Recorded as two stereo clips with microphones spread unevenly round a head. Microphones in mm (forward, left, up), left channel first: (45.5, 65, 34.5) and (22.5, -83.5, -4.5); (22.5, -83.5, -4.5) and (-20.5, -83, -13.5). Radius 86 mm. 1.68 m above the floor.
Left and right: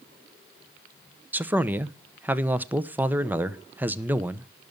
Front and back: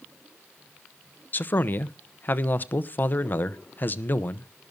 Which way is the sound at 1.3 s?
15° right.